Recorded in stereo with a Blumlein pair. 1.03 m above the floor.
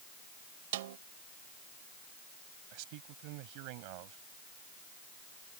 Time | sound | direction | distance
0.7 | a snare drum | 55° right | ?
2.7 | a man speaking | 45° right | ?